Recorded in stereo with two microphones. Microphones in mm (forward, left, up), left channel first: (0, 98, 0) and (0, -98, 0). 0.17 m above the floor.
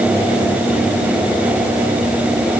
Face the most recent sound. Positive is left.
No sound to turn to.